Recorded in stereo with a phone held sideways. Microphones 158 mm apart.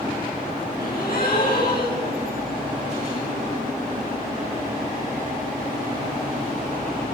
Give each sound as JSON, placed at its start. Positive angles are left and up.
{"t": 0.8, "sound": "a gasp", "side_deg": 70, "distance_m": 9.0}